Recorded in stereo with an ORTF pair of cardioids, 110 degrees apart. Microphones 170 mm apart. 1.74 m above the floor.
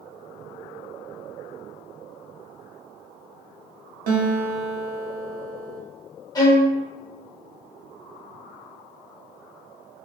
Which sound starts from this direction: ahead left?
A violin, at 6.3 s.